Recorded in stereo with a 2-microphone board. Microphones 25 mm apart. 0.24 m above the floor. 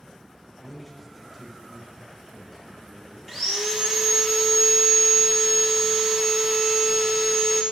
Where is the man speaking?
5° left (ahead or behind), 1.1 m; by 3.2 s 5° right (ahead or behind), 2 m.